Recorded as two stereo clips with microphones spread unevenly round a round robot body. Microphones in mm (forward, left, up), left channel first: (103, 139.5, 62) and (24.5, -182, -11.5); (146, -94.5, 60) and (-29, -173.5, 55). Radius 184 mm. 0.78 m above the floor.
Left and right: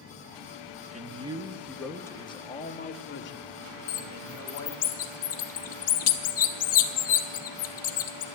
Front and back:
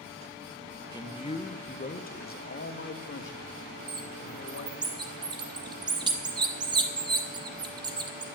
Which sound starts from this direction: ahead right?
A man speaking, at 0.9 s.